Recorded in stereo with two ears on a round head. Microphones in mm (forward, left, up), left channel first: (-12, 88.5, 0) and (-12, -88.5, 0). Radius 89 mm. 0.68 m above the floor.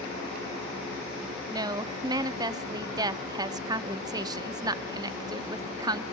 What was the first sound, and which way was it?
A woman speaking, 20° right (ahead or behind).